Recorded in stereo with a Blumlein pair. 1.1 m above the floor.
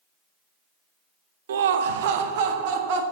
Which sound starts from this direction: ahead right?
Laughter, at 1.5 s.